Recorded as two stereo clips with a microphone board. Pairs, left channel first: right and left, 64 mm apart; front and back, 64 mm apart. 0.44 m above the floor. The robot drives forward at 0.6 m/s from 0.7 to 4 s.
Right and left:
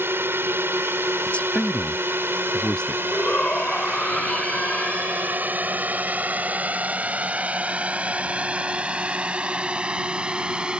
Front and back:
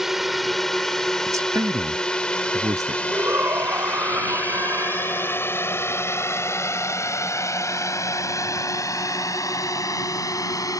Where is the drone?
95° left; by 10.8 s 15° left.